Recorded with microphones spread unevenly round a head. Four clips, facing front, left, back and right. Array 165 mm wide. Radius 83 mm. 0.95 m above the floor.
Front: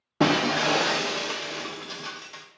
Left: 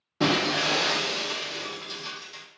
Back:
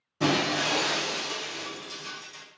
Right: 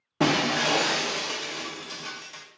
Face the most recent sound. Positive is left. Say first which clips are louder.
# right 1 dB, front 4 dB
turn(degrees=-15)